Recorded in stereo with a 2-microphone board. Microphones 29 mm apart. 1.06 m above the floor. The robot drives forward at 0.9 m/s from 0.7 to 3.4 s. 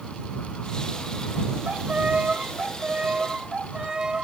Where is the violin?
55° right (ahead or behind), 1.7 m; by 4.2 s 30° right (ahead or behind), 3 m.